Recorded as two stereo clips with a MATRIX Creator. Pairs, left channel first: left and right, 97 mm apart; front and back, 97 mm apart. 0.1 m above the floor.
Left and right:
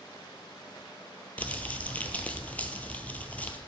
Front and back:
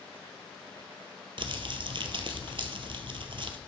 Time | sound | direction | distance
1.4 | crumpling | 165° left | 0.7 m